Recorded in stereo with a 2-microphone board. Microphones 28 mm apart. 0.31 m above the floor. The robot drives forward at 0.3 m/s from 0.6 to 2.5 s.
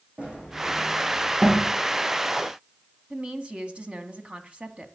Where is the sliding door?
45° right (ahead or behind), 6.5 m.